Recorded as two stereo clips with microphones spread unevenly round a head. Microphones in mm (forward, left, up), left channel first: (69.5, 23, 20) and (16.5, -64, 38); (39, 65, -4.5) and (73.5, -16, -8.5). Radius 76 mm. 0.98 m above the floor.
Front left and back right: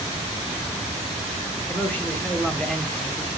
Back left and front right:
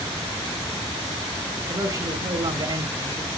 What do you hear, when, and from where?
1.7 s a man speaking: 15° right, 3.5 m; by 3.3 s 30° right, 2.5 m